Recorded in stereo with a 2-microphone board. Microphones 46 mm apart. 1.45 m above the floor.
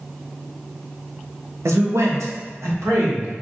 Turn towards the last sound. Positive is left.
turn(degrees=-80)